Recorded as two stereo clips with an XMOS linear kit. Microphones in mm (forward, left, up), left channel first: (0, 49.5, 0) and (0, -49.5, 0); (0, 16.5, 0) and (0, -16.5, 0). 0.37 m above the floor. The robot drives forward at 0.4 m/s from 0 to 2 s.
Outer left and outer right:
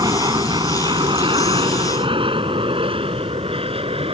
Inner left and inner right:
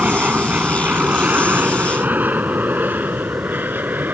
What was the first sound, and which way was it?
An aircraft, 40° right (ahead or behind).